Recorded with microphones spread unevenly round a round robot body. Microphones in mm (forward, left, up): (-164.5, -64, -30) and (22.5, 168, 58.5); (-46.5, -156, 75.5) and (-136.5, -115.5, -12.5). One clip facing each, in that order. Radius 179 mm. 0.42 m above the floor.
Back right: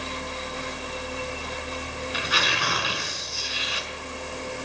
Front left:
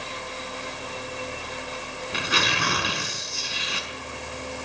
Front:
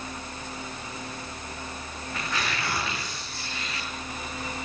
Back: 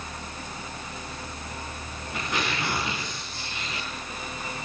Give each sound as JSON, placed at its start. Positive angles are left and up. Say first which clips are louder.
{"t": 2.1, "sound": "tearing paper", "louder": "front left 5 dB, back 2 dB", "azimuth_deg": 90, "distance_m": 6.0}